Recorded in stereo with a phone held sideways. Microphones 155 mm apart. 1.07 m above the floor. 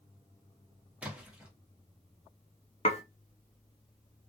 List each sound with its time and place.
1.0 s a splash: 10° right (ahead or behind), 1.0 m
2.9 s dishes clattering: 45° left (ahead or behind), 0.6 m